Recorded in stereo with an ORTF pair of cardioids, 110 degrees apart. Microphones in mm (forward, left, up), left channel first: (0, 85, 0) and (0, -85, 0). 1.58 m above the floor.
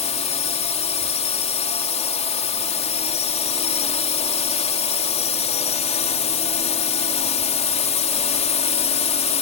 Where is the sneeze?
No sneeze in this recording.